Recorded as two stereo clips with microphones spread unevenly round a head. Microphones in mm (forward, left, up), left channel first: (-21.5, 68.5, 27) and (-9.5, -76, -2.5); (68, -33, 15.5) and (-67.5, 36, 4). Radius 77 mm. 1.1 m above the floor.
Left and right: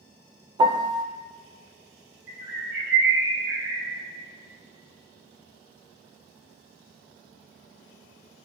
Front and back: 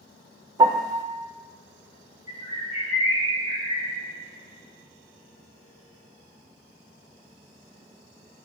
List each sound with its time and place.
0.6 s a piano: 140° right, 0.6 m
2.3 s a bird: 75° right, 2.5 m